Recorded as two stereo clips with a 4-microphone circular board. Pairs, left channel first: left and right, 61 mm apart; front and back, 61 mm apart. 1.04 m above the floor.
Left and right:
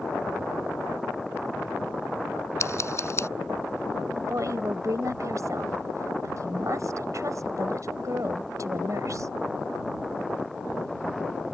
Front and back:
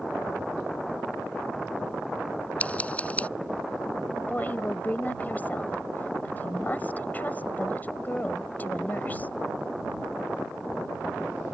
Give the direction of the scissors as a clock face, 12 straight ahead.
10 o'clock.